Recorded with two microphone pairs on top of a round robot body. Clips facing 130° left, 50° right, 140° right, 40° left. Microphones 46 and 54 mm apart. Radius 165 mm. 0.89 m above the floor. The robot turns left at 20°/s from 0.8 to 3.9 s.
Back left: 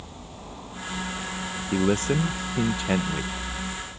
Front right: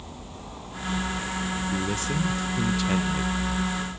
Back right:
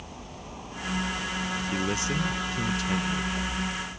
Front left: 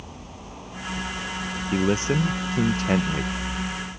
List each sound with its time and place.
1.7 s a man speaking: 90° left; by 3.3 s 60° left